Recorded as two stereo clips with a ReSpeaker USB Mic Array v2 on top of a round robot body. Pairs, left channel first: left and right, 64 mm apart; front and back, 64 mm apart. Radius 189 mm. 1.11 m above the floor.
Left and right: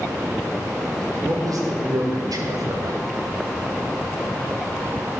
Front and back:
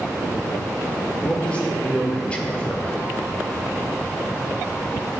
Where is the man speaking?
75° right, 1.3 m.